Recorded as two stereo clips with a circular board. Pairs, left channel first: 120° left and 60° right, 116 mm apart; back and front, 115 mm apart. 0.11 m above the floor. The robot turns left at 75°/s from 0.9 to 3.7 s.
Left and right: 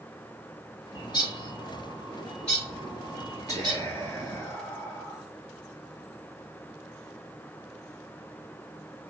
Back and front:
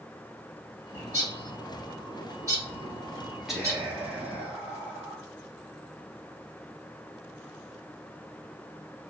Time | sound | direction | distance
0.9 | a bird | 155° left | 1.8 m
3.5 | whispering | 90° left | 1.4 m